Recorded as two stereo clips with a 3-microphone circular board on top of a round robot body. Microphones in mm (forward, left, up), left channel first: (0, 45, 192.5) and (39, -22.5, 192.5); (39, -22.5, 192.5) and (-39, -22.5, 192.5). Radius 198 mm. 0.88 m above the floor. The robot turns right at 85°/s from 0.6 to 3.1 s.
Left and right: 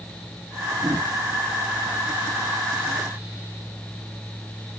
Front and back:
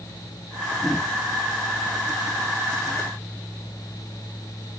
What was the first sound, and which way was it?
Only background noise.